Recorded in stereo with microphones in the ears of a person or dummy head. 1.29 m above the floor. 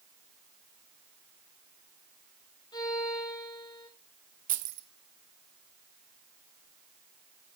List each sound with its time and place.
2.7 s a violin: 25° left (ahead or behind), 1.4 m
4.5 s keys jangling: 45° right (ahead or behind), 0.6 m